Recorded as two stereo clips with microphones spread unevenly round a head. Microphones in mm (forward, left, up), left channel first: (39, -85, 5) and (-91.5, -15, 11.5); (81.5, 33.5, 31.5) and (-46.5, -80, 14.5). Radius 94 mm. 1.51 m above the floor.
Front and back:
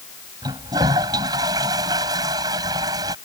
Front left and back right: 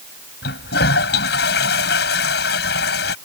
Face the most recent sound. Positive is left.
turn(degrees=80)